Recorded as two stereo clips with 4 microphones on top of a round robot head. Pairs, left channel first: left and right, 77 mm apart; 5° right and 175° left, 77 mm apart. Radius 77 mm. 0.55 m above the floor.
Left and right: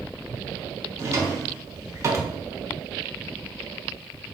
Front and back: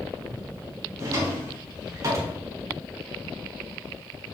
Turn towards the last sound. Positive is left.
turn(degrees=-140)